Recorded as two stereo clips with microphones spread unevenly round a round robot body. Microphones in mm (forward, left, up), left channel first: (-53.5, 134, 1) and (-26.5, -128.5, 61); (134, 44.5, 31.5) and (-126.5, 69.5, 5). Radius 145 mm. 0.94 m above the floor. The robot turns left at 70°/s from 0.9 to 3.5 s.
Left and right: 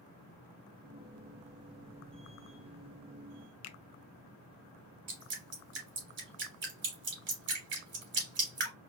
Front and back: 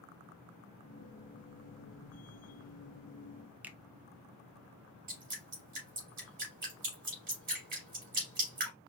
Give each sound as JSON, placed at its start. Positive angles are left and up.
{"t": 3.6, "sound": "a finger snap", "azimuth_deg": 95, "distance_m": 0.5}
{"t": 5.1, "sound": "dripping", "azimuth_deg": -125, "distance_m": 2.5}